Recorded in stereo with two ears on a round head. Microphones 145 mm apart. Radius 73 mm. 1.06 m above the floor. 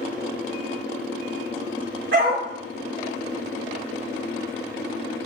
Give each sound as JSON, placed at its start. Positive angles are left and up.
{"t": 2.1, "sound": "a dog barking", "side_deg": -80, "distance_m": 2.5}